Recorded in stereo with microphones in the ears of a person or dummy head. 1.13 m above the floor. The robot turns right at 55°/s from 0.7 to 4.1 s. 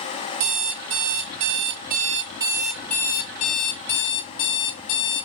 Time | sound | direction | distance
0.4 | an alarm clock | 110° right | 1.2 m